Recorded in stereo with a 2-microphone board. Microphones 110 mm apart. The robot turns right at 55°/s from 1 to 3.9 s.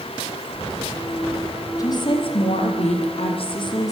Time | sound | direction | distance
1.8 | a woman speaking | 35° left | 5.5 m